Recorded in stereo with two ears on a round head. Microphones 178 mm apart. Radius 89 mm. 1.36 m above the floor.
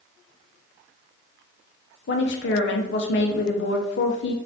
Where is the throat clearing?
I don't hear throat clearing.